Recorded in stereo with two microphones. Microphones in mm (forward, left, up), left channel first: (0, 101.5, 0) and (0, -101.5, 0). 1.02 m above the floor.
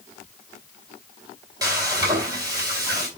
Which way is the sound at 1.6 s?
20° right (ahead or behind).